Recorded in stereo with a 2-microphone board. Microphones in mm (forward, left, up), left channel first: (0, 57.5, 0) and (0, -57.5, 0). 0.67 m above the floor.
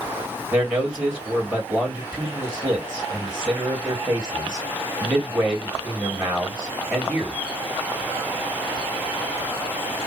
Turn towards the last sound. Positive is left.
turn(degrees=-10)  # may be behind; listen again after turning